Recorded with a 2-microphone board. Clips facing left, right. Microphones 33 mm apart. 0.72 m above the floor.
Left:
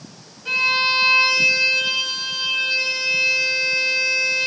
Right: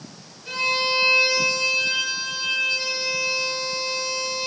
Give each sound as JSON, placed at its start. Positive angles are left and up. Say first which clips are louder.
{"t": 0.5, "sound": "a violin", "louder": "left 5 dB", "side_deg": 50, "distance_m": 2.5}